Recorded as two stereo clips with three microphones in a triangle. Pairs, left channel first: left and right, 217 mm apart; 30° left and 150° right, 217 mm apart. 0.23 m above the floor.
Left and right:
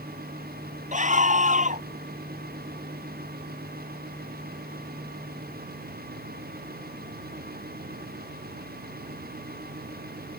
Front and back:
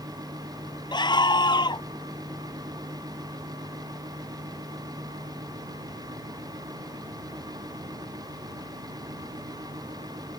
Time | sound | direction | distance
0.9 | a scream | 40° right | ?